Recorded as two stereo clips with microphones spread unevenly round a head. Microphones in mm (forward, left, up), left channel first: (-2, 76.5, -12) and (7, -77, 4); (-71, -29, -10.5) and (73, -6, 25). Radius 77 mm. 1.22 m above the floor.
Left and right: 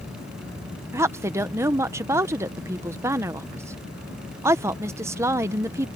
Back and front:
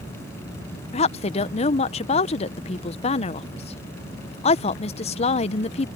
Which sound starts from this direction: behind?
A woman speaking, at 0.9 s.